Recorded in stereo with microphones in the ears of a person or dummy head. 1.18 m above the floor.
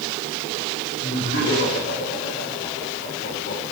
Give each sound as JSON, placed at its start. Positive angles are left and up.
{"t": 1.0, "sound": "laughter", "side_deg": 60, "distance_m": 6.0}